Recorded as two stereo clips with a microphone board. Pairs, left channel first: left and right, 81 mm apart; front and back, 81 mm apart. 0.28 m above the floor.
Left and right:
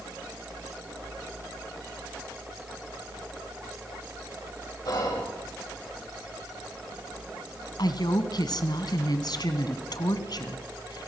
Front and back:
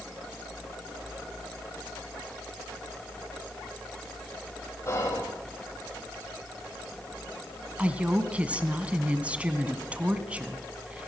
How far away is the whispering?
About 9 m.